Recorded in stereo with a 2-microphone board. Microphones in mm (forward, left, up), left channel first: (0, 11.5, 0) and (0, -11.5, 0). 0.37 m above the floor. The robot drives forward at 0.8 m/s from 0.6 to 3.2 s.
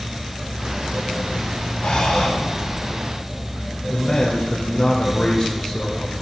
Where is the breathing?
60° left (ahead or behind), 2.5 m.